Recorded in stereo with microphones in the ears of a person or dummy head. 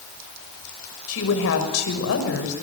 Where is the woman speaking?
80° left, 6.5 m.